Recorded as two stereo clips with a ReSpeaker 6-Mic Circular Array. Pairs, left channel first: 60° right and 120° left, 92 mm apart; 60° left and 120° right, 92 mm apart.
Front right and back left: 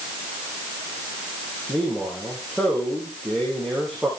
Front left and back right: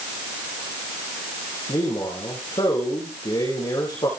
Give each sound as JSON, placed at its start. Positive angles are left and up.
{"t": 1.7, "sound": "a man speaking", "azimuth_deg": 30, "distance_m": 7.5}